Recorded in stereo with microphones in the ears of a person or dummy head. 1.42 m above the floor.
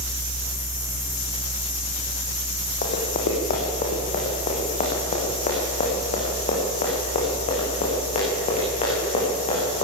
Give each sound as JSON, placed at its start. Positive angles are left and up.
{"t": 2.8, "sound": "running footsteps", "side_deg": 45, "distance_m": 4.5}